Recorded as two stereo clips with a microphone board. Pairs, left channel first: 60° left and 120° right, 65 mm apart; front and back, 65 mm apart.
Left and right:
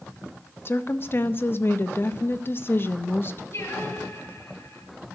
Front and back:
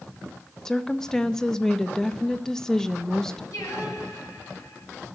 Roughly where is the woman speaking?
Left.